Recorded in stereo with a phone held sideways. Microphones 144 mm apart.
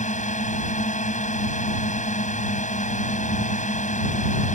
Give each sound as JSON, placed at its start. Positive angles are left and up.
{"t": 0.0, "sound": "a drone", "side_deg": 60}